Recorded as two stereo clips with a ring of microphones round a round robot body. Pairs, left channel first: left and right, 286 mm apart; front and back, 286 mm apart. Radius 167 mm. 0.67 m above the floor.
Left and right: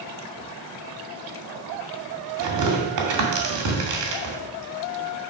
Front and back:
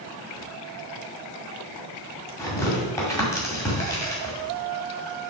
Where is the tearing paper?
80° right, 2 m.